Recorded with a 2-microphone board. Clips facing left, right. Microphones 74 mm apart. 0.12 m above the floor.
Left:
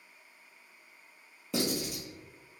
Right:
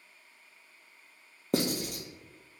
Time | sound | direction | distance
1.5 | writing | 50° right (ahead or behind) | 0.7 m